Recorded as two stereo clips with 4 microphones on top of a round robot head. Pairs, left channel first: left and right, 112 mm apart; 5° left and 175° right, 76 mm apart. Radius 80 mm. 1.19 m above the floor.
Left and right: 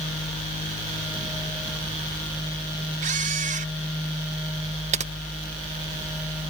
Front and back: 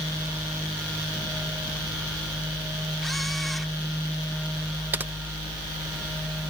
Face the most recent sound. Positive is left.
turn(degrees=-105)